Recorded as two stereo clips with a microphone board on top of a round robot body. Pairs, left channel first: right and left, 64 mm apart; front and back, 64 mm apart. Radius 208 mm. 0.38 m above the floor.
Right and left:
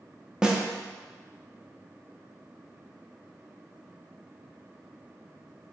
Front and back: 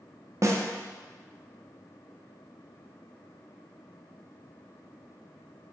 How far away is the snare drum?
About 0.5 m.